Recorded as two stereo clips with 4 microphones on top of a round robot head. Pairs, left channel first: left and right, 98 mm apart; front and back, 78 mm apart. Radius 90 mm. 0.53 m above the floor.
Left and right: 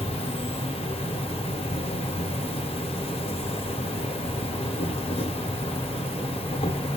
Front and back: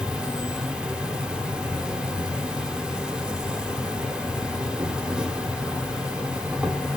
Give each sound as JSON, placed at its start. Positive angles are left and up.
{"t": 0.0, "sound": "an insect", "azimuth_deg": 95, "distance_m": 1.2}